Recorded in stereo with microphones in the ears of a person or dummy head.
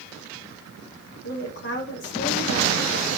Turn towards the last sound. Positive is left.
turn(degrees=60)  # may be behind; listen again after turning